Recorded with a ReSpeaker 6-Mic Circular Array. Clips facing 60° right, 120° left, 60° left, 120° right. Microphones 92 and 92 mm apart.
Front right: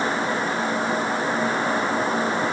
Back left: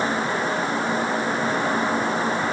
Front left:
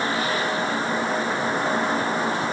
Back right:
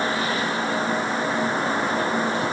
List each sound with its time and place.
Only background noise.